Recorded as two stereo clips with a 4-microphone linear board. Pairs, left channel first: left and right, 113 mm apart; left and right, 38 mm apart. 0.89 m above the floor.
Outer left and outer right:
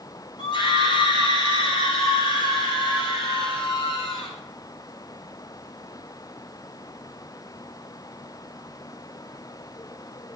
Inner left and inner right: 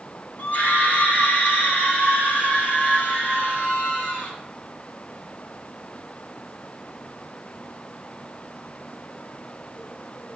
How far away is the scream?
About 2.5 m.